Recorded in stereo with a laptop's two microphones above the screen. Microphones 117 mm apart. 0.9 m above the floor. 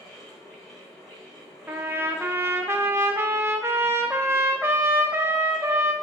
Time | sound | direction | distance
0.0 | a fan | 5° left (ahead or behind) | 1.9 m
1.7 | a trumpet | 20° right (ahead or behind) | 0.6 m